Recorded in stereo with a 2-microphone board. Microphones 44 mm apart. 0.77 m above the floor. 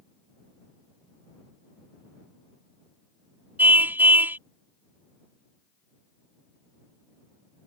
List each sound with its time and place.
3.6 s a car horn: 50° right (ahead or behind)